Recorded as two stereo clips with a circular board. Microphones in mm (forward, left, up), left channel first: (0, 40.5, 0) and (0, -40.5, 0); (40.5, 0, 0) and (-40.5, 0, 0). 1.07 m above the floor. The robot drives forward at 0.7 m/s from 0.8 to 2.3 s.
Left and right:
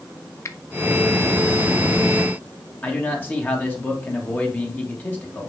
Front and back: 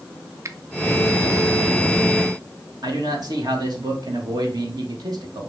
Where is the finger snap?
135° left, 0.5 m.